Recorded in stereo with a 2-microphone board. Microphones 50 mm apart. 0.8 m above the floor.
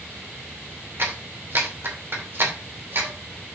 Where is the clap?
50° right (ahead or behind), 2.5 m.